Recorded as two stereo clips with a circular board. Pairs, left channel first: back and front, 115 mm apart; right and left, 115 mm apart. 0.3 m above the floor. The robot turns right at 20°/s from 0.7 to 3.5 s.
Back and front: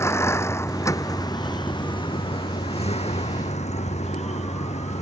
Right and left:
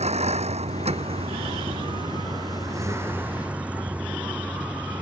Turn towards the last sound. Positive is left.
turn(degrees=170)